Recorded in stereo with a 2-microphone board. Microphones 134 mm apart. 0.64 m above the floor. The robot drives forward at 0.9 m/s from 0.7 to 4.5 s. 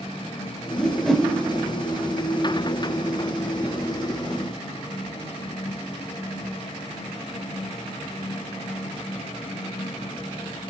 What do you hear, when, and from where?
0.8 s a whoosh: 5° left (ahead or behind), 1.8 m